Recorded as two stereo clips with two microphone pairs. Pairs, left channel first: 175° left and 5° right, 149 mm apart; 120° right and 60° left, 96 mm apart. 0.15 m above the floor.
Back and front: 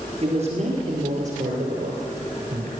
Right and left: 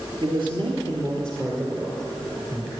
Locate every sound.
0.2 s a man speaking: 25° left, 2.5 m; by 2.7 s 5° right, 3 m